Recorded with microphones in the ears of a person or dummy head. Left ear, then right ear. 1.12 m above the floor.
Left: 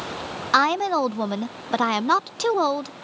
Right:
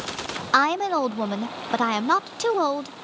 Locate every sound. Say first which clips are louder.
0.5 s a woman speaking: left 1 dB; centre (ahead or behind)